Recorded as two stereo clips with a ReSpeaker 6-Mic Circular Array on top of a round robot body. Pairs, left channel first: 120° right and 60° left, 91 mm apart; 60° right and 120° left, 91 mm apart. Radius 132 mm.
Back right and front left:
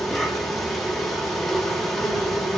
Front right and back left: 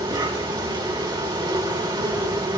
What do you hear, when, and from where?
0.0 s an insect: 155° left, 3.5 m